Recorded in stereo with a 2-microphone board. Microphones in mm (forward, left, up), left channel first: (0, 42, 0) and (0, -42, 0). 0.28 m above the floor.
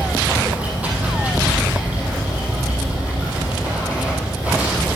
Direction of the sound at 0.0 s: 20° right (ahead or behind).